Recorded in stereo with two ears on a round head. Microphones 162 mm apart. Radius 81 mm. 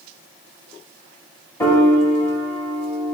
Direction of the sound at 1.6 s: 15° left (ahead or behind).